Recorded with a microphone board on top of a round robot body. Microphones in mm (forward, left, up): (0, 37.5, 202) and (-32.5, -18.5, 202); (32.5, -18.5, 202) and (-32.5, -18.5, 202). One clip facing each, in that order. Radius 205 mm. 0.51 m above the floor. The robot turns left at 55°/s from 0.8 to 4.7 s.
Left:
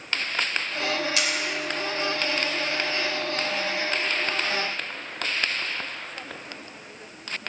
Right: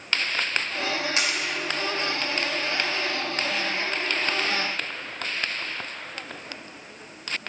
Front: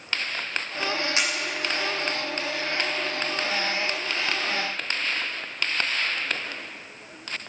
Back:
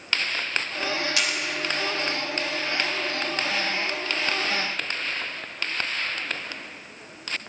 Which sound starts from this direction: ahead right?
A camera shutter, at 1.2 s.